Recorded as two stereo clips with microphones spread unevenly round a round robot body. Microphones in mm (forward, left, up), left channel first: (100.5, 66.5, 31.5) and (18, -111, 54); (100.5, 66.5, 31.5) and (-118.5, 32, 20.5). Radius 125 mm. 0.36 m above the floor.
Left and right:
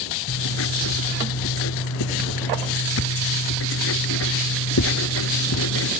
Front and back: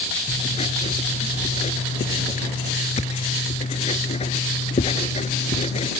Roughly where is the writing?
Left.